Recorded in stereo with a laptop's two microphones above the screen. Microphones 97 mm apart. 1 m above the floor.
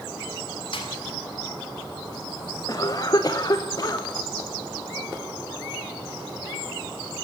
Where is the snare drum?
65° left (ahead or behind), 1.8 m.